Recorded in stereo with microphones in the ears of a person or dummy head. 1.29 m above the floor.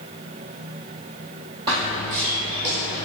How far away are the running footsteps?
About 1.4 m.